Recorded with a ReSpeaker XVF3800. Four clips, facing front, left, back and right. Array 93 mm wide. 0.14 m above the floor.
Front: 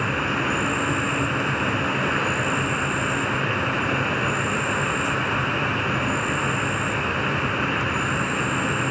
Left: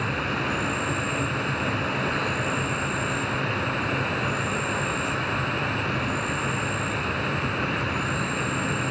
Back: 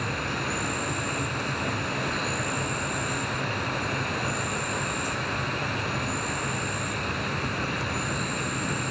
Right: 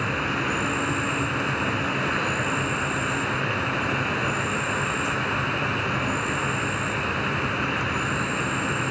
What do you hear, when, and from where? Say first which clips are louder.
0.0 s an insect: right 1 dB, front 6 dB; 20° right, 0.7 m